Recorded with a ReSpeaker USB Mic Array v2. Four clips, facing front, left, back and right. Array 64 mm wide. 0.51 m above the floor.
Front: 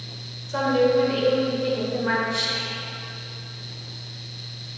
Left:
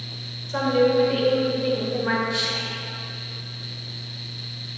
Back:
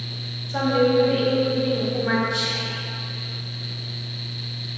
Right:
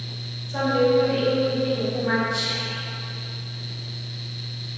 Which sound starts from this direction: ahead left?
A woman speaking, at 0.5 s.